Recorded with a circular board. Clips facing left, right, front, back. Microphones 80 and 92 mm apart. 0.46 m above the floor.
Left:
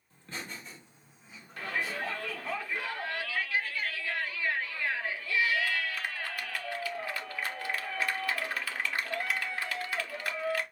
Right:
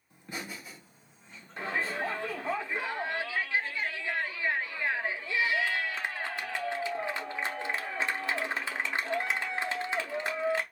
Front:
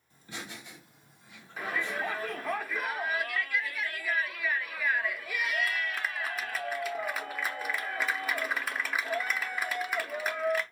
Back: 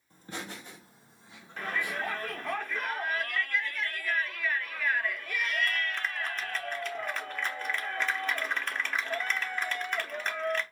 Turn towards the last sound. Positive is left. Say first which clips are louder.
# right 2 dB, even
turn(degrees=-75)